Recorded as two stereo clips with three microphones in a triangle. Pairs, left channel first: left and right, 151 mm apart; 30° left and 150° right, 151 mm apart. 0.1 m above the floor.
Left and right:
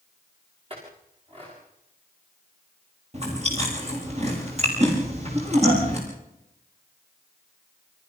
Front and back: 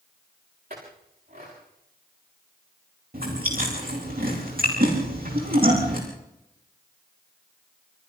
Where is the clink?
140° right, 7 m.